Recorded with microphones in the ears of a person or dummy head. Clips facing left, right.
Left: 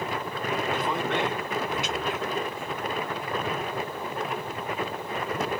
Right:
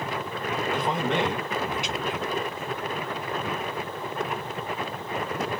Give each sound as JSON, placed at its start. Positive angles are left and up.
{"t": 0.7, "sound": "a man speaking", "side_deg": -20, "distance_m": 3.0}